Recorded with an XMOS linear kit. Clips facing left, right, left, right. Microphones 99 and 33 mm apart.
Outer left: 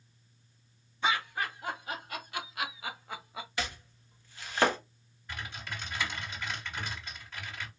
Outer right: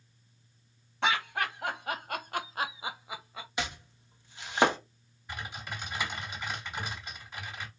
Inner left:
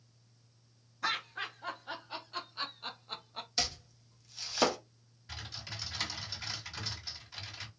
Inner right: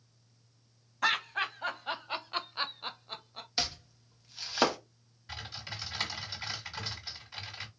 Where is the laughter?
80° right, 1.3 m; by 3.5 s 10° left (ahead or behind), 0.7 m.